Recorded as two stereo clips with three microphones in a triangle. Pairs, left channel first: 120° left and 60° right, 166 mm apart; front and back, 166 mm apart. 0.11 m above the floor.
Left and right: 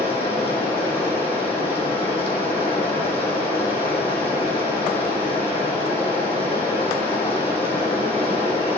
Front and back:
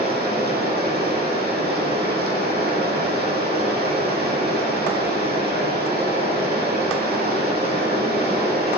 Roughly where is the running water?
Behind.